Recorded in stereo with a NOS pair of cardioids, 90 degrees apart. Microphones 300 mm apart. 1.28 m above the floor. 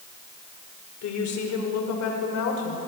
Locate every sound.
1.0 s a woman speaking: 70° left, 5 m; by 2.8 s 75° left, 6 m